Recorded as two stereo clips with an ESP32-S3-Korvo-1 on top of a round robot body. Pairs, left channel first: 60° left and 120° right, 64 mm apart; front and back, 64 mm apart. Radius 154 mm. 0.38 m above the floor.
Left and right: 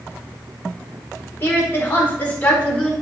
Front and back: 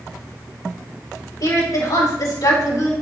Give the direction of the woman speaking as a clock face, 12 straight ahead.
12 o'clock.